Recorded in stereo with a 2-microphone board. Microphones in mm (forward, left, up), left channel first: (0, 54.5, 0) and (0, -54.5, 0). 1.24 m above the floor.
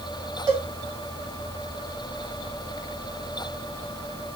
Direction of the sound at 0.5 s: 35° right (ahead or behind).